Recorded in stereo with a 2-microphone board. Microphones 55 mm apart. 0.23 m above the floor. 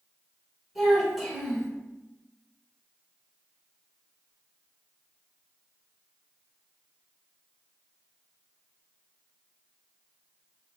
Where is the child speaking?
10° right (ahead or behind), 0.7 m.